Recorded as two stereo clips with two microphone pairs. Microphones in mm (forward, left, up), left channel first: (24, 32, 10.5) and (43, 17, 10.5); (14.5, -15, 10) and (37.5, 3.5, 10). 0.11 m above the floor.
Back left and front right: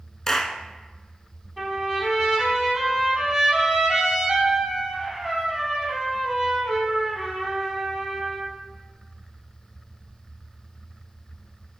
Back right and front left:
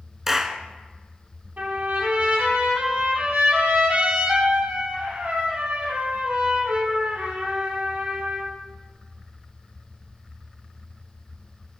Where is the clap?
95° left, 0.9 m.